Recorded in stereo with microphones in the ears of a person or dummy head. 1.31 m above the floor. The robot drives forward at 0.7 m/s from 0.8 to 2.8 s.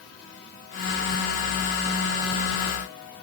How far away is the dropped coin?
I don't hear a dropped coin.